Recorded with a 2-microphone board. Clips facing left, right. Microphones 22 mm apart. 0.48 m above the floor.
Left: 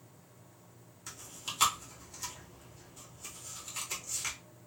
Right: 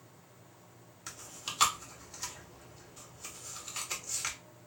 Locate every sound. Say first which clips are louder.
1.1 s chewing: even; 20° right (ahead or behind), 0.9 m